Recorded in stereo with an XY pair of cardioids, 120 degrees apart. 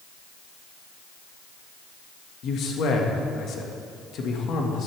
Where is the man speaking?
60° left, 2 m.